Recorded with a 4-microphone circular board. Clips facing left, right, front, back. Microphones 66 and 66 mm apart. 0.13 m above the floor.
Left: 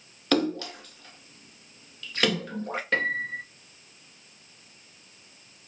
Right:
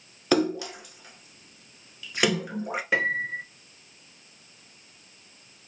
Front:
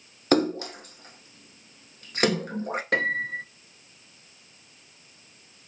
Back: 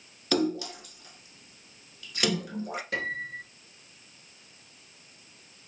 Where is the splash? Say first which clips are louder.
Right 2 dB, front 4 dB; 15° right, 0.7 m.